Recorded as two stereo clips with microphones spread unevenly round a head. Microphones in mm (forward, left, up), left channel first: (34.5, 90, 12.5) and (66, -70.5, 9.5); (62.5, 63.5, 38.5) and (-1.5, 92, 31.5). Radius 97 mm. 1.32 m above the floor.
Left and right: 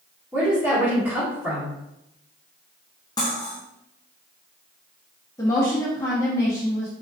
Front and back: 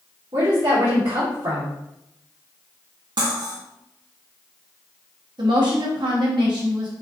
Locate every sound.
0.3 s a woman speaking: 160° right, 1.6 m
3.2 s cutlery clinking: 170° left, 0.9 m
5.4 s a woman speaking: 175° left, 1.0 m